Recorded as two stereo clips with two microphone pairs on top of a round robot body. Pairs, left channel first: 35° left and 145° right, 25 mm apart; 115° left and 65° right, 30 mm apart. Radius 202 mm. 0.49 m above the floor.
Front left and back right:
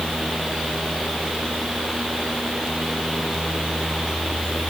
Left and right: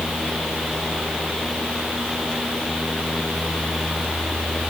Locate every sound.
Only background noise.